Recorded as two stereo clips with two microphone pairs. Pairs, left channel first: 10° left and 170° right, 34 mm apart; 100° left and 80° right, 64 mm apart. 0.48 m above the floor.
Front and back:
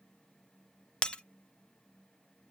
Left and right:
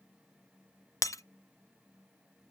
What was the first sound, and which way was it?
Breaking glass, 70° left.